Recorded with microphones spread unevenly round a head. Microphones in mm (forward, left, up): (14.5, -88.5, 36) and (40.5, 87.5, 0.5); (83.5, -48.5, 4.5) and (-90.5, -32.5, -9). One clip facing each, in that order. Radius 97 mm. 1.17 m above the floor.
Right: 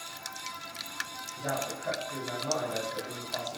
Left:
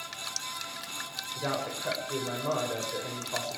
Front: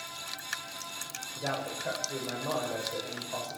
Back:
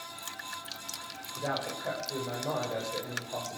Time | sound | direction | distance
1.4 | a man speaking | 90° left | 5.5 m